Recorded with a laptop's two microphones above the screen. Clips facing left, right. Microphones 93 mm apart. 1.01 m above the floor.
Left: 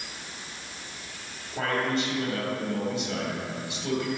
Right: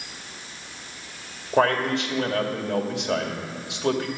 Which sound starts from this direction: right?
A man speaking, at 1.5 s.